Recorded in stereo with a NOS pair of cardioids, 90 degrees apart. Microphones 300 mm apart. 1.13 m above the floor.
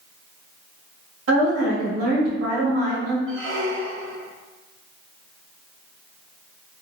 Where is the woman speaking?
55° right, 1.5 m.